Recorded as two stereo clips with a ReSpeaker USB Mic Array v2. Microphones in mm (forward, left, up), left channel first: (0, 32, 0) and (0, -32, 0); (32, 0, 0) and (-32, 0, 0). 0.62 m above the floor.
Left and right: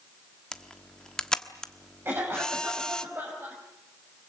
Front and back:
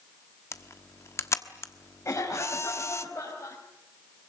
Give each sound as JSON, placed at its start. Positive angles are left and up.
{"t": 0.5, "sound": "a camera shutter", "azimuth_deg": 15, "distance_m": 1.2}
{"t": 2.0, "sound": "a cough", "azimuth_deg": -40, "distance_m": 5.0}